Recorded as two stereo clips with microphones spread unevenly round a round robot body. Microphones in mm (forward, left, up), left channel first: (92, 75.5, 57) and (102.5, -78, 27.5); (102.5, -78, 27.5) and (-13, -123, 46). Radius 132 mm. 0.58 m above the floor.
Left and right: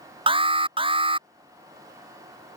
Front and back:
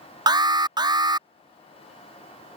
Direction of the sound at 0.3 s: 105° right.